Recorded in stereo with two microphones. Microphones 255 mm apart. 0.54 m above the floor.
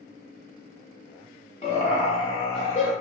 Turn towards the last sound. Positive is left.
turn(degrees=25)  # may be behind; listen again after turning